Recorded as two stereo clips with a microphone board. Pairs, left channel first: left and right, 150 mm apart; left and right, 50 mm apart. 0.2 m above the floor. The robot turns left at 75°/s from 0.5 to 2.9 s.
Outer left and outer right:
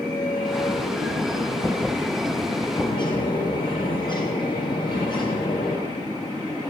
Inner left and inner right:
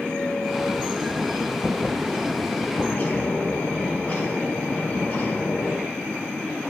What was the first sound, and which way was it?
A bird, 20° left (ahead or behind).